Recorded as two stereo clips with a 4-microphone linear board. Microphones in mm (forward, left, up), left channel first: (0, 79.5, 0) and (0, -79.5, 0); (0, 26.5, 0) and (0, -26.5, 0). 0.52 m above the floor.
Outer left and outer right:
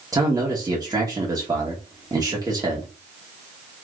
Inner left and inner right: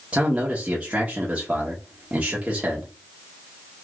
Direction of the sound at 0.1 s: 20° right (ahead or behind).